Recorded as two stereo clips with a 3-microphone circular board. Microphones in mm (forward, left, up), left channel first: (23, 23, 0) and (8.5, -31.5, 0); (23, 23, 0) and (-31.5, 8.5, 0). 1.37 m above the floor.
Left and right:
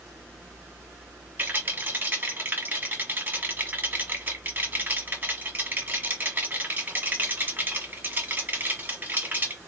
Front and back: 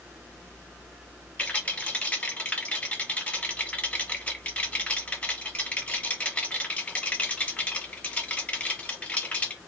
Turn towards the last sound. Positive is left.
turn(degrees=-50)